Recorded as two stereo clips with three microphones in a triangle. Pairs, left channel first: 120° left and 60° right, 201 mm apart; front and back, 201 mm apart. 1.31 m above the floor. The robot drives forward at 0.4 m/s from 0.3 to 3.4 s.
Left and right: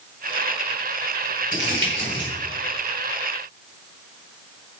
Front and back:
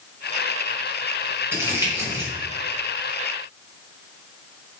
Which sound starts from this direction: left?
Crumpling, at 1.5 s.